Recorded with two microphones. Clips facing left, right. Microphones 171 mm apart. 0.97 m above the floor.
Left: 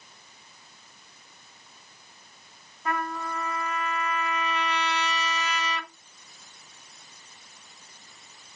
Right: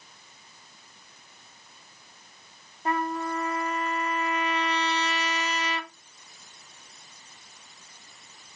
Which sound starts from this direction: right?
A trumpet, at 2.9 s.